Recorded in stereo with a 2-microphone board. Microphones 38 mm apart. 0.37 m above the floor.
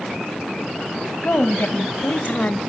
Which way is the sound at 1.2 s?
65° left (ahead or behind).